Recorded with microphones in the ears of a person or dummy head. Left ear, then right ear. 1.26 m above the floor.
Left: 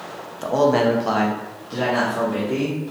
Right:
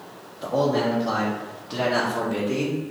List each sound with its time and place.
0.4 s a man speaking: 55° left (ahead or behind), 0.7 m; by 2.8 s 55° right (ahead or behind), 0.9 m